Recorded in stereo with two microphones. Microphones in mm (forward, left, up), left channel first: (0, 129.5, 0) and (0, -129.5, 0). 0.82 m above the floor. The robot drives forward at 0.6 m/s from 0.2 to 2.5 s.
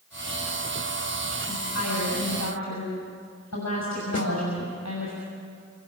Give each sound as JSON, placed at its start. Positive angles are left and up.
{"t": 1.5, "sound": "a woman speaking", "side_deg": 80, "distance_m": 6.0}
{"t": 4.1, "sound": "a snare drum", "side_deg": 65, "distance_m": 2.5}